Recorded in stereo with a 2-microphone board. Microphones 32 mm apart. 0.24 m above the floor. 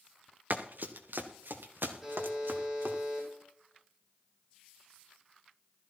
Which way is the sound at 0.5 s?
50° right (ahead or behind).